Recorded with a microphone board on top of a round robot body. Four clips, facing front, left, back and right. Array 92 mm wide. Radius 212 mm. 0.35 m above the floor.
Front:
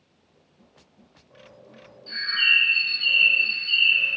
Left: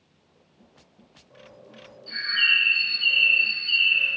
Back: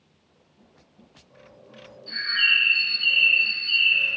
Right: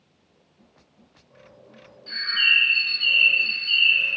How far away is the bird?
About 1.0 m.